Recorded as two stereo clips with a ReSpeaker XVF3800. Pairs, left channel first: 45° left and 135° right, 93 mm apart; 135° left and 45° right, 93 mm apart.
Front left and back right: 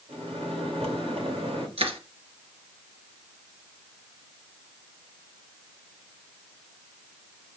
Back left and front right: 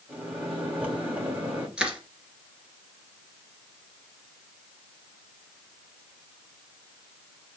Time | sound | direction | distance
0.1 | a microwave | 120° right | 4 m
1.8 | crushing | 125° right | 2.5 m